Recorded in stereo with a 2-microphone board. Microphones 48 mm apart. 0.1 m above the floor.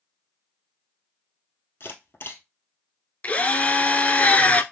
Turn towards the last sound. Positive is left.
turn(degrees=35)  # may be behind; listen again after turning